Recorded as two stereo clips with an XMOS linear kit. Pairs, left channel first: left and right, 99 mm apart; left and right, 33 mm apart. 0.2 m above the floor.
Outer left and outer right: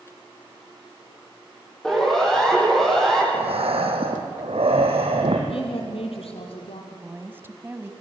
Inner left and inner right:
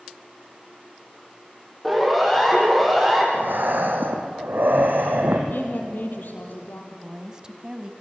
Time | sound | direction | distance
1.8 | a siren | 5° left (ahead or behind) | 10 m
3.3 | breathing | 80° right | 3.5 m
5.5 | a woman speaking | 75° left (ahead or behind) | 5.5 m
6.9 | a woman speaking | 20° right (ahead or behind) | 1.2 m